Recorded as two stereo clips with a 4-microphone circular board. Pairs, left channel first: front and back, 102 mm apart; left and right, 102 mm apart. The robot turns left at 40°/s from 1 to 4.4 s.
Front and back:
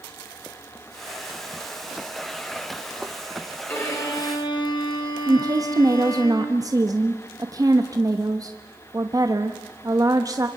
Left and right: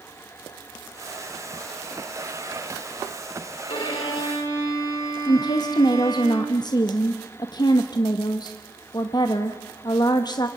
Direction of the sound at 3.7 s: 65° left.